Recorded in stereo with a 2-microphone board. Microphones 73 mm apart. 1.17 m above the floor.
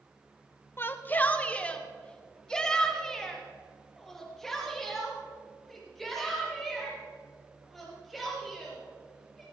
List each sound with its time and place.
0.8 s a shout: 30° left (ahead or behind), 0.8 m; by 9.4 s centre (ahead or behind), 6 m